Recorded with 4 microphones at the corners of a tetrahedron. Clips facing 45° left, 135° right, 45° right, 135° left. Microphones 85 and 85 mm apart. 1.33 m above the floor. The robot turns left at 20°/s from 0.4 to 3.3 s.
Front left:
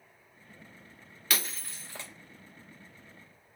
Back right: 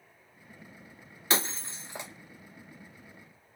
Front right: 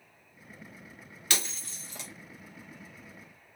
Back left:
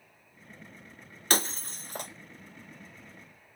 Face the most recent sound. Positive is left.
turn(degrees=130)